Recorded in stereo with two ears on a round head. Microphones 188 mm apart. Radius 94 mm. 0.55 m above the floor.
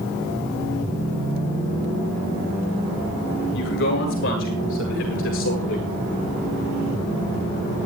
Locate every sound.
3.5 s a man speaking: 60° left (ahead or behind), 9.5 m; by 5.9 s 70° left (ahead or behind), 10 m